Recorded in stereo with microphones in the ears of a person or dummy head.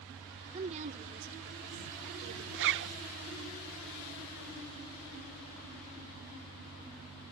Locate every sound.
0.5 s a woman speaking: 35° right (ahead or behind); by 2.4 s 65° right (ahead or behind)
2.5 s a zipper: 60° right (ahead or behind)